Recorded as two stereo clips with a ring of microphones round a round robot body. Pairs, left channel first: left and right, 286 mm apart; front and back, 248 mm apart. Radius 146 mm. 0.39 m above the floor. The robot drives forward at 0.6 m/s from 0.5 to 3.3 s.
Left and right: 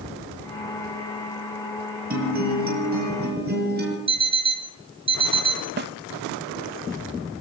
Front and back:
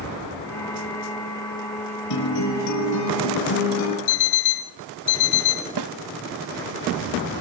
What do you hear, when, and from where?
2.1 s a guitar: 30° right, 7 m
4.1 s an alarm clock: 15° right, 2.5 m
5.8 s a snare drum: 150° right, 0.6 m